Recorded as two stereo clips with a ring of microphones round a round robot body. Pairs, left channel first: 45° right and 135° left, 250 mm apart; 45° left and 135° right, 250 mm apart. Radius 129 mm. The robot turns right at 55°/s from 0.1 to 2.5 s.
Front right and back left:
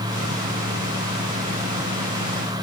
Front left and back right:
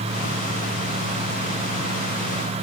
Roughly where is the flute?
No flute in this recording.